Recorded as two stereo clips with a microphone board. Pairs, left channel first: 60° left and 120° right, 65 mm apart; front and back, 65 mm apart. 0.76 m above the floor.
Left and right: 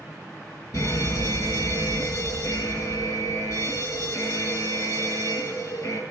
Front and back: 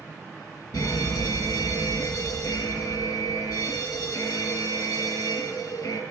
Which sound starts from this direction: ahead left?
A fire alarm, at 0.7 s.